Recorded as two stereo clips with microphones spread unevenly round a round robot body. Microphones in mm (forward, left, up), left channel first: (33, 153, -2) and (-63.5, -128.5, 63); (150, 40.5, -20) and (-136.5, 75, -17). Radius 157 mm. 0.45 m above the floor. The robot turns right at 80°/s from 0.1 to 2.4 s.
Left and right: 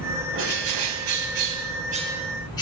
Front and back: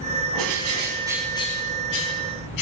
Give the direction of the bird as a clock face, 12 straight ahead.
6 o'clock.